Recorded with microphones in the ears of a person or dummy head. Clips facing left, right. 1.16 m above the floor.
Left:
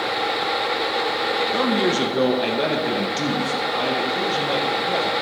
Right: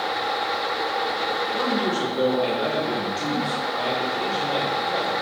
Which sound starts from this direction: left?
A man speaking, at 1.5 s.